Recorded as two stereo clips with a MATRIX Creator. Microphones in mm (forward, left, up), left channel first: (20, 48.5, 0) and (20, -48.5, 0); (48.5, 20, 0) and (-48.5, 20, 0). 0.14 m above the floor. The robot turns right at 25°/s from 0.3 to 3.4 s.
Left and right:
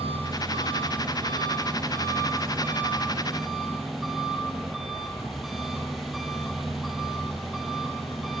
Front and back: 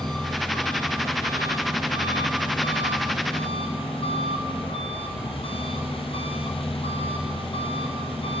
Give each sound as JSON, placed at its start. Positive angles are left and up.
{"t": 0.0, "sound": "an engine running", "azimuth_deg": -80, "distance_m": 3.0}